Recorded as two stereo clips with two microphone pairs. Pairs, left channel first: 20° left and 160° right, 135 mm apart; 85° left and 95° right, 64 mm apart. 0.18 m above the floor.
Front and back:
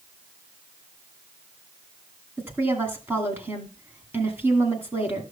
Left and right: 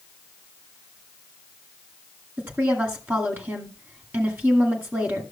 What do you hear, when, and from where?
2.4 s a woman speaking: 95° right, 1.9 m